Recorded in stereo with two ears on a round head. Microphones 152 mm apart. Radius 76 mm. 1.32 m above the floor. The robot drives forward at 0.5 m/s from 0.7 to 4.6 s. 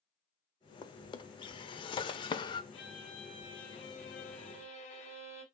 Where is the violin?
35° left (ahead or behind), 4.5 m; by 5.5 s 45° left (ahead or behind), 3.5 m.